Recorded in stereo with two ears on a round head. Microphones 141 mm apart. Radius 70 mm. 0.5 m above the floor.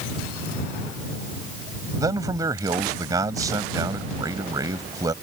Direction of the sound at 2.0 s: 25° right (ahead or behind).